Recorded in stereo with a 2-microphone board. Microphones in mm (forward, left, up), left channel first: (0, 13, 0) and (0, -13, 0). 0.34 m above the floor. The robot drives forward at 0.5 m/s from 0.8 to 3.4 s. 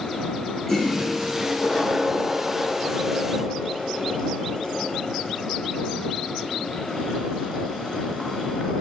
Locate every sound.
0.7 s a toilet flushing: 10° left (ahead or behind), 2.0 m